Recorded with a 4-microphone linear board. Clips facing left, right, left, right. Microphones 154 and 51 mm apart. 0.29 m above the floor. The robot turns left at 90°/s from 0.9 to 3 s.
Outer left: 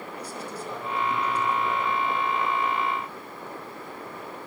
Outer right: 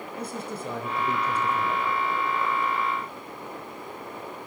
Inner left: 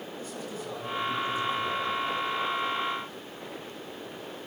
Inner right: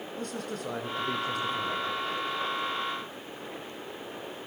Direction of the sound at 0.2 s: 65° right.